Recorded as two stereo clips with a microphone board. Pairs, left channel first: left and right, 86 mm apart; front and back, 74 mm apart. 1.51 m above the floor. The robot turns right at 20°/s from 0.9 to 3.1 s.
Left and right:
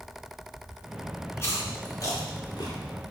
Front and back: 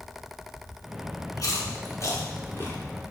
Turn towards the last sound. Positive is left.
turn(degrees=65)